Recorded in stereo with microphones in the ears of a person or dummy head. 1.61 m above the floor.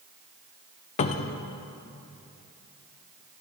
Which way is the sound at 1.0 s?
30° left (ahead or behind).